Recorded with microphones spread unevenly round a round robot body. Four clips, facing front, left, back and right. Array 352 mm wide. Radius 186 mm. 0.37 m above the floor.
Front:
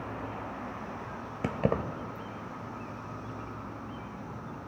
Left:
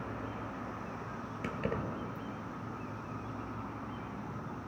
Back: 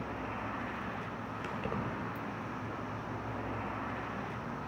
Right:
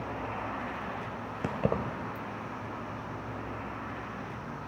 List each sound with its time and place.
1.4 s keys jangling: 35° right, 1.0 m